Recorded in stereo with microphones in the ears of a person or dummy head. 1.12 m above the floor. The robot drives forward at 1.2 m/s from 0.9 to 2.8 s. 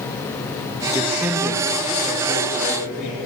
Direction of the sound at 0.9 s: 10° right (ahead or behind).